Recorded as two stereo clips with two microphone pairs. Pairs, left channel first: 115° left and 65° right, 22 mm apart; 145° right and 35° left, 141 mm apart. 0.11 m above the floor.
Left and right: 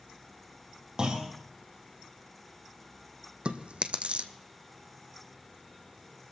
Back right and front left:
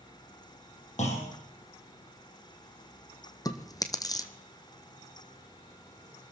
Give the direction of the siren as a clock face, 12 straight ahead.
I don't hear a siren.